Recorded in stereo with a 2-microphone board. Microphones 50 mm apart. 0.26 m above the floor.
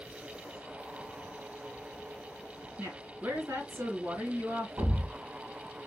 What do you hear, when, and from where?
2.8 s a woman speaking: 50° right (ahead or behind), 3 m
4.8 s a thud: 50° right (ahead or behind), 1.2 m